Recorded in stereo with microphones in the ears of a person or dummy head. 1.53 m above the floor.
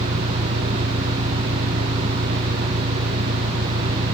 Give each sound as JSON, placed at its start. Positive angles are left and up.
{"t": 0.0, "sound": "an engine running", "side_deg": -70}